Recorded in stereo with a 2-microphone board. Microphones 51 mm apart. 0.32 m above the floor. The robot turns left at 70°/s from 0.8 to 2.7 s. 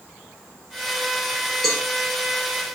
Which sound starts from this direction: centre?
A cowbell, at 1.6 s.